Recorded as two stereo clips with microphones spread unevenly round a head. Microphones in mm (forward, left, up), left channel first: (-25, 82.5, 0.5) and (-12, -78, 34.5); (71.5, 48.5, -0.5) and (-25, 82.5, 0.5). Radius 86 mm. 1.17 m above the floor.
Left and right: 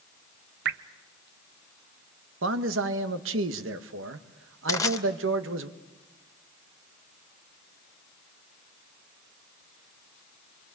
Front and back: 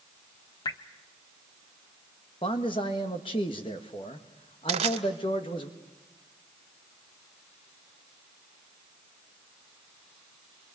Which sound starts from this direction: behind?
Crushing, at 4.7 s.